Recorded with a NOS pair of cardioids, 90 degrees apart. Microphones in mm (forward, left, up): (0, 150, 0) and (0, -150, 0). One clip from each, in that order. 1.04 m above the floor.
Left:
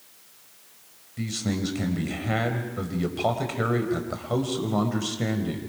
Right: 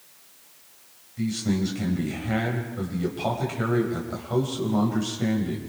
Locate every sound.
1.2 s a man speaking: 35° left, 5 m